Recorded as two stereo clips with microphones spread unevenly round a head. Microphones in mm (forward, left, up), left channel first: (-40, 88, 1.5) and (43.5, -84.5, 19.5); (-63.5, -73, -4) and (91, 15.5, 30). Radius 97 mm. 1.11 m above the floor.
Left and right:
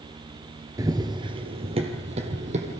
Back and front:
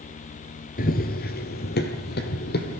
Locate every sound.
0.8 s running footsteps: 120° right, 1.3 m; by 2.8 s 115° right, 3 m